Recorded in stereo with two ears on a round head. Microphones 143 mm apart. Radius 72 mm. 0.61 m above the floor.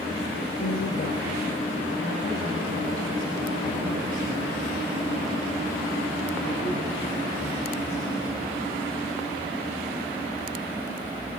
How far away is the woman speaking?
About 2 m.